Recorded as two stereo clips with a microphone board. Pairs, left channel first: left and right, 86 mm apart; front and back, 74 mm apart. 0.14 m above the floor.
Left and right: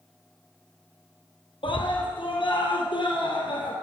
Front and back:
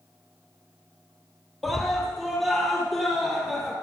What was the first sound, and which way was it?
A scream, 90° left.